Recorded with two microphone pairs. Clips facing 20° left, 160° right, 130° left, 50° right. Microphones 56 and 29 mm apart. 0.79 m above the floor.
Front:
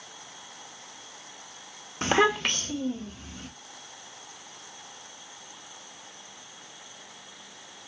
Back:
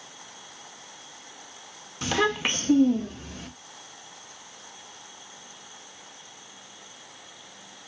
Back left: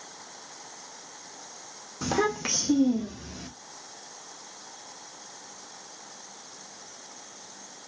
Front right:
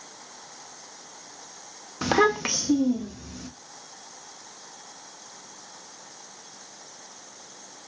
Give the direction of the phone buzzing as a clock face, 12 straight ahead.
I don't hear a phone buzzing.